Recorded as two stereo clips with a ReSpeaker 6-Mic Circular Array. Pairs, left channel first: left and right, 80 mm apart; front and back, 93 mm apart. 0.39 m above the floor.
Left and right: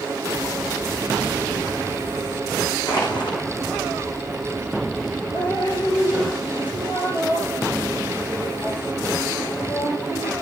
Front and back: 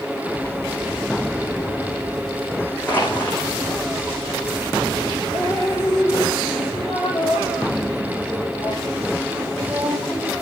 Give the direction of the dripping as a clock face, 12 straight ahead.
9 o'clock.